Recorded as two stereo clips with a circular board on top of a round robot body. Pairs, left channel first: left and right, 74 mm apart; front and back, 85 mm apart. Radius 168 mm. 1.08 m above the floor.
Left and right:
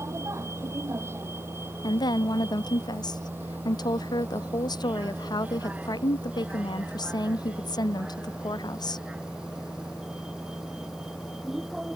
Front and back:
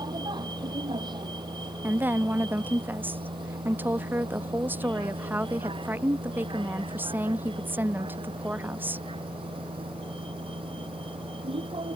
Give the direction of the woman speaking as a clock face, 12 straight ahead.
8 o'clock.